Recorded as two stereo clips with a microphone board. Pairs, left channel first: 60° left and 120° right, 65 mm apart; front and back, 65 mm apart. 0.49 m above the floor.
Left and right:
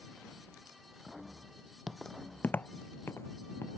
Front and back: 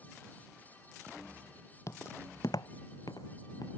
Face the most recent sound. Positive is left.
turn(degrees=10)